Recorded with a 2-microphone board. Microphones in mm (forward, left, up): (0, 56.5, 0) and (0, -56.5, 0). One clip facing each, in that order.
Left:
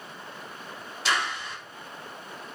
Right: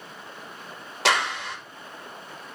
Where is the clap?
75° right (ahead or behind), 1.4 m.